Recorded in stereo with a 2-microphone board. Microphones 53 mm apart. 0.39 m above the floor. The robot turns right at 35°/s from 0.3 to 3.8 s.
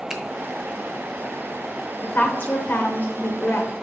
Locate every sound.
0.1 s a finger snap: 10° right (ahead or behind), 1.0 m
2.0 s a woman speaking: 60° left, 1.0 m; by 3.7 s 120° left, 1.0 m